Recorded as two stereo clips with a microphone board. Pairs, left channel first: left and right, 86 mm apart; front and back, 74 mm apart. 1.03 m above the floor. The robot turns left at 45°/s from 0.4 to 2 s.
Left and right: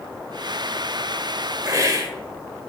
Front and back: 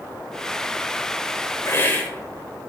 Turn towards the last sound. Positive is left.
turn(degrees=-65)